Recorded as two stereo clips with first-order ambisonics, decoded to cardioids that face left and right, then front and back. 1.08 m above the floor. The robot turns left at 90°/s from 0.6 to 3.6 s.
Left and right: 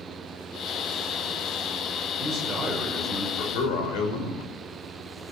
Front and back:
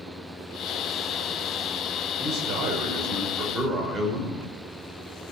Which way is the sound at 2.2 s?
125° right.